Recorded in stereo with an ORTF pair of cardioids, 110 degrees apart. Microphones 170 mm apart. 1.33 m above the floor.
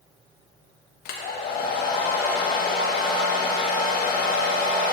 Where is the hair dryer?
70° left, 1.4 m.